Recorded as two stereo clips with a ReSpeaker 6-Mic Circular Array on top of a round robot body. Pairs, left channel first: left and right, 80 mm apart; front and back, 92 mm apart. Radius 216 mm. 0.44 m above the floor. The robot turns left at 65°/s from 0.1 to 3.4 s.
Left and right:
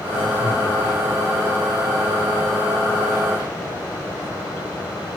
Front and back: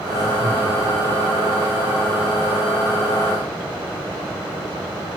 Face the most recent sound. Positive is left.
turn(degrees=-125)